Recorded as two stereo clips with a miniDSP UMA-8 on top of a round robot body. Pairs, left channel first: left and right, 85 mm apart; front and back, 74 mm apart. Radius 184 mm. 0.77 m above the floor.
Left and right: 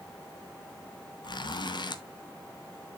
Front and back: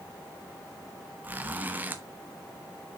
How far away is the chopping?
I don't hear chopping.